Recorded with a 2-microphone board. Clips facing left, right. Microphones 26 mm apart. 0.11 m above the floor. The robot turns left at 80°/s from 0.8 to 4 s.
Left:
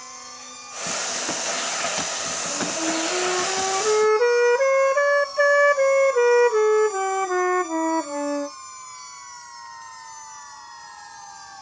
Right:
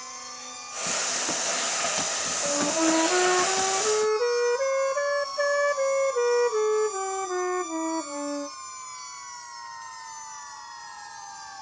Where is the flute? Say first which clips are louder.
Right 4 dB; 90° right; by 8.6 s 145° left.